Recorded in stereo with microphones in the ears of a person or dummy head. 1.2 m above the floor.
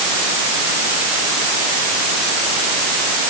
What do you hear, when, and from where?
Only background noise.